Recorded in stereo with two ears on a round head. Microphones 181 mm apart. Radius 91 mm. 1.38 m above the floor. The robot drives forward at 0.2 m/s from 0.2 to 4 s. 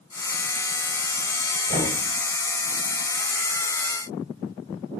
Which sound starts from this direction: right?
Knocking, at 1.7 s.